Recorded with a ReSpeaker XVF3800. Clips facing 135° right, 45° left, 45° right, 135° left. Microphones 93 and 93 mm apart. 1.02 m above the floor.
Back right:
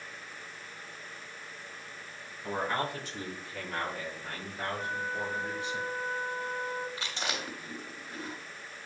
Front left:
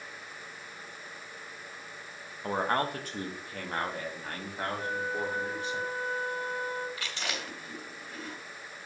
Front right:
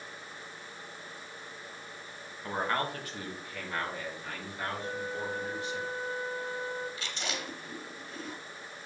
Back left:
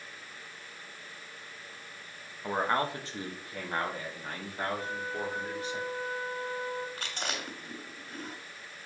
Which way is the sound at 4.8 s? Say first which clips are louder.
Front left 3 dB, even; 150° left.